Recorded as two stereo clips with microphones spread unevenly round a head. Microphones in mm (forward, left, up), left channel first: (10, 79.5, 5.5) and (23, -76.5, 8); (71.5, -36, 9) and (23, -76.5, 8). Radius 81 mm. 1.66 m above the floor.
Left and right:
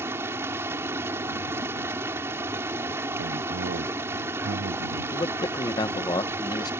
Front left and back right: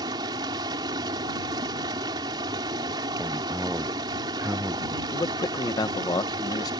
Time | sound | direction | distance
0.0 | running water | 160° right | ?
3.2 | a man speaking | 70° right | ?
5.1 | a man speaking | 30° left | ?